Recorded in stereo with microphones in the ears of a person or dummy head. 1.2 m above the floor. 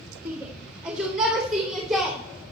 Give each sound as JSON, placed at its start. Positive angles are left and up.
{"t": 0.2, "sound": "a shout", "side_deg": -15, "distance_m": 1.6}